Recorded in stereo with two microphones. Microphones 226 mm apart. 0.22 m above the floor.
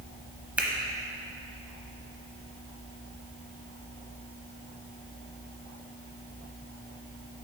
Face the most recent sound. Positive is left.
turn(degrees=-5)  # may be behind; listen again after turning